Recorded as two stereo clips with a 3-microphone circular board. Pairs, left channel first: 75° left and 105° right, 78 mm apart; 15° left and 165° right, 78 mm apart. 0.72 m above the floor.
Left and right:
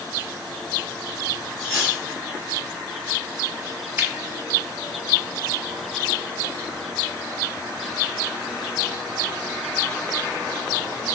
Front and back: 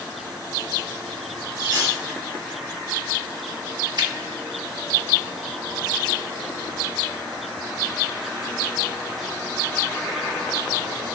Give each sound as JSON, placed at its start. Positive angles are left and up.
{"t": 1.6, "sound": "cutlery clinking", "azimuth_deg": 160, "distance_m": 2.5}
{"t": 4.0, "sound": "a finger snap", "azimuth_deg": -165, "distance_m": 0.7}